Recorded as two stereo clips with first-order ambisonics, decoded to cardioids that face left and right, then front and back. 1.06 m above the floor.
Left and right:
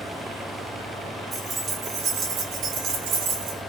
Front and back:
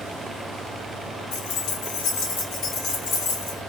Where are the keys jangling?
15° right, 1.1 m; by 3.6 s 60° right, 1.9 m.